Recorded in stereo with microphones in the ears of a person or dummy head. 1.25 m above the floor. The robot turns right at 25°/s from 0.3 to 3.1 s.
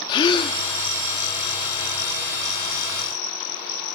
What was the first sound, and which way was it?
A gasp, 25° left (ahead or behind).